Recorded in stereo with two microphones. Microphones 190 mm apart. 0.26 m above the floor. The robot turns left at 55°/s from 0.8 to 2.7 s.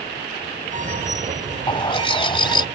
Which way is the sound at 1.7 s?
25° left (ahead or behind).